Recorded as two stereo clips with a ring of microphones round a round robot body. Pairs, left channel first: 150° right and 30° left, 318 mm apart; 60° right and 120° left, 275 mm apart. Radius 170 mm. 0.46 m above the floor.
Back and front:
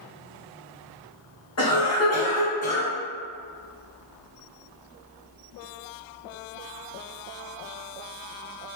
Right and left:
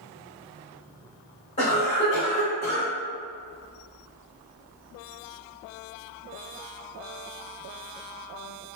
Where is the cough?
120° right, 1.5 m.